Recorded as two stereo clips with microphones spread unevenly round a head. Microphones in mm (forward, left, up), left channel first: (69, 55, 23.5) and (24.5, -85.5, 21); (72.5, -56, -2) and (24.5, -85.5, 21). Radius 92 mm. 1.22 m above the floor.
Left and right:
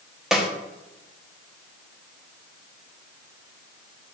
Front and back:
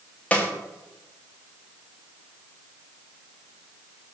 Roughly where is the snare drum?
Ahead.